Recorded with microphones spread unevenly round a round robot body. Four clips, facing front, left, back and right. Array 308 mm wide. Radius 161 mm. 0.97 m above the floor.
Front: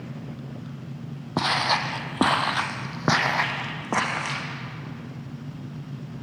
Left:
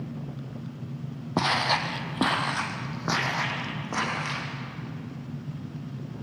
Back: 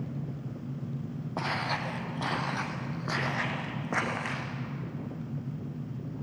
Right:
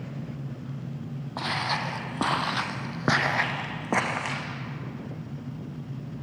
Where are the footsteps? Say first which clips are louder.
Left 4 dB, front 8 dB; 45° left, 2.5 m; by 4.4 s 55° right, 4 m.